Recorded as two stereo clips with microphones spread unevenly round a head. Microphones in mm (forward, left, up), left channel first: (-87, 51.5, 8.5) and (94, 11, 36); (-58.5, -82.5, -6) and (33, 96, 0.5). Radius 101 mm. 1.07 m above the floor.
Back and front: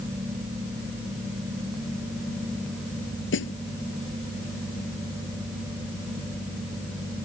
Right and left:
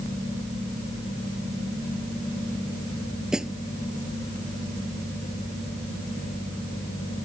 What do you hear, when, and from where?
3.3 s a snare drum: 150° left